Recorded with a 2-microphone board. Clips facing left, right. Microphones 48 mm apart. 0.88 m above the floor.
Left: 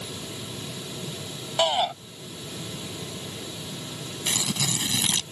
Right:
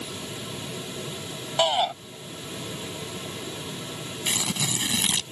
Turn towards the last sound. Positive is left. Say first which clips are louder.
# even
turn(degrees=-15)  # may be behind; listen again after turning